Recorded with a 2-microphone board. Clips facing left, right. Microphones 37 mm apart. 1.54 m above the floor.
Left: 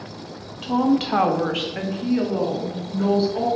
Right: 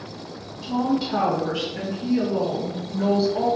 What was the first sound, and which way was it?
A woman speaking, 60° left (ahead or behind).